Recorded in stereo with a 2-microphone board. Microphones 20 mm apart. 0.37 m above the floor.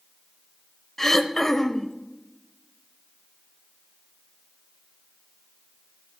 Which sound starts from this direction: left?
Throat clearing, at 1.0 s.